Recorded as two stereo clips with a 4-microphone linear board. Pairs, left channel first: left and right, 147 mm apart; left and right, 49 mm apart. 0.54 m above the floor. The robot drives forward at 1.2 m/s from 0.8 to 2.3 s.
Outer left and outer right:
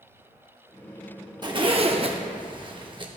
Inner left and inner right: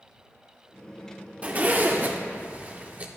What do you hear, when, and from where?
1.4 s a zipper: 30° right (ahead or behind), 0.9 m; by 3.1 s 35° right (ahead or behind), 0.8 m